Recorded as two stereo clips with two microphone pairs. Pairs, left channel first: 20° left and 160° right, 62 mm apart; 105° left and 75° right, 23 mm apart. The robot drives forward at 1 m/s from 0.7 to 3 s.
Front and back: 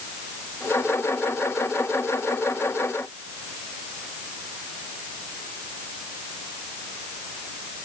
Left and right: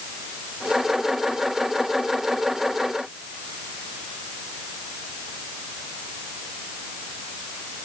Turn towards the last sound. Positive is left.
No sound to turn to.